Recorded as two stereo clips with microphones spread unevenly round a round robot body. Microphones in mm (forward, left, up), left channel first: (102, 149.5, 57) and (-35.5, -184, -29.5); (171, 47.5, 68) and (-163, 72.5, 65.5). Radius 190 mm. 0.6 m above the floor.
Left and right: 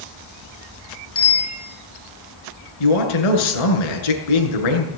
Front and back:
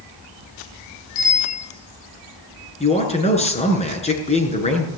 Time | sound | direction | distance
1.1 | a bicycle bell | 15° left | 9 m
2.8 | a man speaking | 65° left | 7.5 m